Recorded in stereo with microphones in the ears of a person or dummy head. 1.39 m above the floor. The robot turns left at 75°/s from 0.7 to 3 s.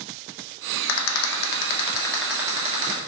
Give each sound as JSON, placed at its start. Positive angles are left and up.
{"t": 0.9, "sound": "a rattle", "azimuth_deg": 100, "distance_m": 0.6}